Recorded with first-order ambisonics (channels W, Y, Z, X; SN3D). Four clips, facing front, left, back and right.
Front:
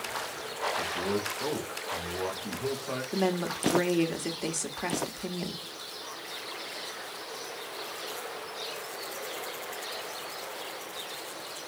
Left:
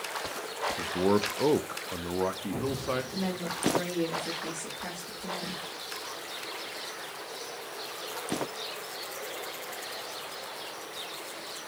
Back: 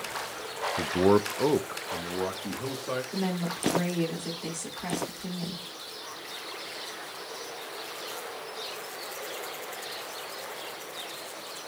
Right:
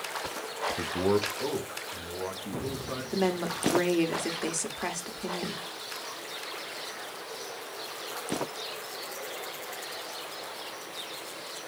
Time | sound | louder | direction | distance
0.8 | a man speaking | left 1 dB, back 12 dB | 160° right | 0.5 m
3.1 | a woman speaking | right 4 dB, front 2 dB | 50° right | 1.4 m